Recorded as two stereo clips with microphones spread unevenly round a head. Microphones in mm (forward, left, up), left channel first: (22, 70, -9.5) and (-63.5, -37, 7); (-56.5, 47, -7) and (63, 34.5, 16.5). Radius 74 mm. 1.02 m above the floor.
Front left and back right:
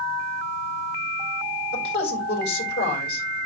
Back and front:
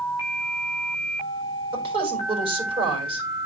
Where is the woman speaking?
40° left, 4.5 m.